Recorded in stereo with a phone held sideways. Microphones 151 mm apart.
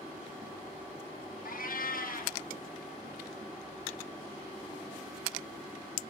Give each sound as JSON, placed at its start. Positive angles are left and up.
{"t": 1.4, "sound": "a cat meowing", "side_deg": 70, "distance_m": 0.8}